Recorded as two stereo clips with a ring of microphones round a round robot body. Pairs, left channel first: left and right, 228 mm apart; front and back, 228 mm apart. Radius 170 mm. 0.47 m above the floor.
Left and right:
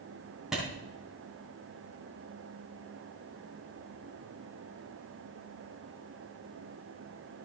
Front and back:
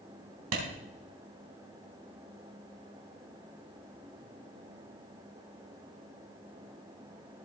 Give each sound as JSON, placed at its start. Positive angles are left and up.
{"t": 0.5, "sound": "a clap", "azimuth_deg": 180, "distance_m": 3.5}